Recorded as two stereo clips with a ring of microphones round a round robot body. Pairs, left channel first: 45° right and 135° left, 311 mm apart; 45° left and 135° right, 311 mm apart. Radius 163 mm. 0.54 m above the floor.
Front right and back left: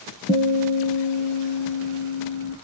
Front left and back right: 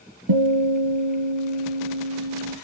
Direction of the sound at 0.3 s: 120° right.